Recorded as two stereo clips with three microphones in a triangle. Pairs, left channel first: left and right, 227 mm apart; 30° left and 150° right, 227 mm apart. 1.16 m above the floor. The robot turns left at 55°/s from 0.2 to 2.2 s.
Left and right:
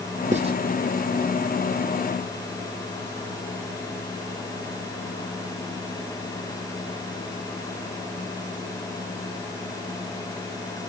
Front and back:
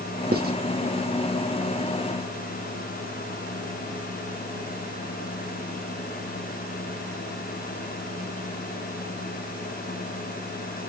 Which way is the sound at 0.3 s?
135° right.